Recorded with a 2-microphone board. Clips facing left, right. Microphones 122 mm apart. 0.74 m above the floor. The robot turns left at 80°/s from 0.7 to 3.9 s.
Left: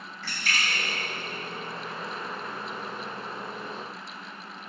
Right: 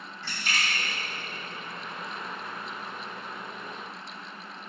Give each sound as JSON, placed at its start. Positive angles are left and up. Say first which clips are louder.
{"t": 0.2, "sound": "a splash", "louder": "left 1 dB", "side_deg": -25, "distance_m": 2.0}